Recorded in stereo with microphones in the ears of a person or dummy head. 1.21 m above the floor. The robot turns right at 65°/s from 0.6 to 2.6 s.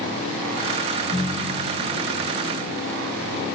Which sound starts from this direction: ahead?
A ringtone, at 0.9 s.